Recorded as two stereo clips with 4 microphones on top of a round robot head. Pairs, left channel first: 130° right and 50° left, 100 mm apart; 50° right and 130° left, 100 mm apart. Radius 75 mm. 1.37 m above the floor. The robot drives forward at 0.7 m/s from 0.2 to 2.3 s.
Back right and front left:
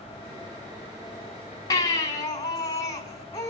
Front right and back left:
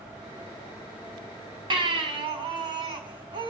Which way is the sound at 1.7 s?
175° left.